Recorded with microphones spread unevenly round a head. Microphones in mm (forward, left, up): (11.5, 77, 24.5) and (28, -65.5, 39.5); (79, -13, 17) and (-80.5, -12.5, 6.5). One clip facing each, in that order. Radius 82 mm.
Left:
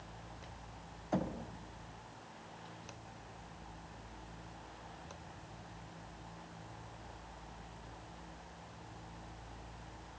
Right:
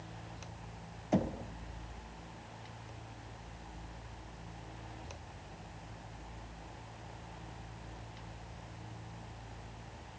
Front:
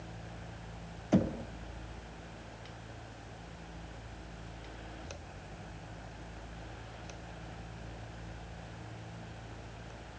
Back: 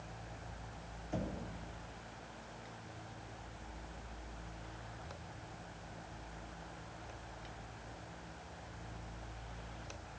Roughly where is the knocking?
Ahead.